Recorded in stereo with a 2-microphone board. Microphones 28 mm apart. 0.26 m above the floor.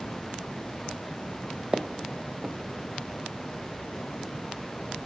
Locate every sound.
1.7 s footsteps: 35° right (ahead or behind), 0.8 m